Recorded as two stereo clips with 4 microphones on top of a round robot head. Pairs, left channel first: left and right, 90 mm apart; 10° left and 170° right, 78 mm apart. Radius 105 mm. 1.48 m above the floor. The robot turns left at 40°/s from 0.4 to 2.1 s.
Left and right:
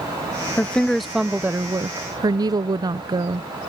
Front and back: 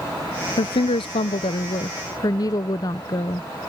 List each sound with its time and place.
0.6 s a woman speaking: 20° left; by 3.5 s 40° right